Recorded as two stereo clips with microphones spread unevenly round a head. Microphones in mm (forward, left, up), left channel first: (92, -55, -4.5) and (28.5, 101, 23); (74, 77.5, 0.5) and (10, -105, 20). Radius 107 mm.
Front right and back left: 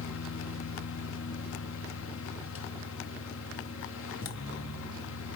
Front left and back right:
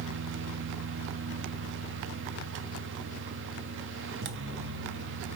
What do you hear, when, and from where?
0.0 s a fan: 85° right, 0.8 m